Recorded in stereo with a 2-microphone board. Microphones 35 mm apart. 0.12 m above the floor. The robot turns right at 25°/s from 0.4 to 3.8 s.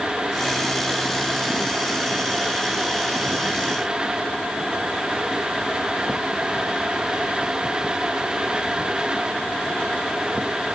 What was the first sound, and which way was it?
Only background noise.